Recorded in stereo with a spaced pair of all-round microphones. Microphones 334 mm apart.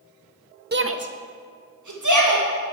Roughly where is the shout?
Right.